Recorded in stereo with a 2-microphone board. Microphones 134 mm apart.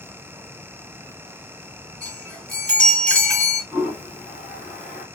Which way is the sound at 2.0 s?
10° left (ahead or behind).